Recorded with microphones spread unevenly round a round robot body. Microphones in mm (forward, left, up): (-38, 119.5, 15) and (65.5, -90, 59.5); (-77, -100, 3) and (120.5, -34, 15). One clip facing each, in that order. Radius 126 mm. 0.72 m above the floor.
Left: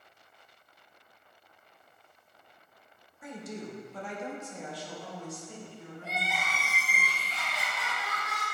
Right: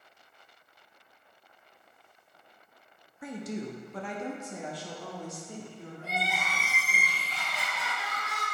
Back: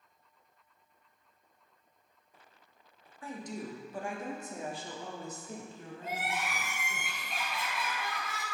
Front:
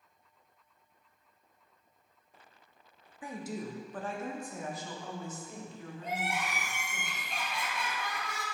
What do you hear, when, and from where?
3.2 s a woman speaking: 55° right, 1.0 m; by 7.0 s 130° right, 2.5 m
6.0 s crying: 75° right, 2.5 m